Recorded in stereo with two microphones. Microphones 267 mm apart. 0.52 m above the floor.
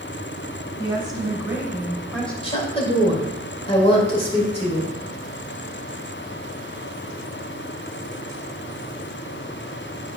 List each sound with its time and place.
0.8 s a woman speaking: 20° right (ahead or behind), 2.5 m; by 2.3 s 5° left (ahead or behind), 2.5 m
2.4 s a woman speaking: 20° left (ahead or behind), 2 m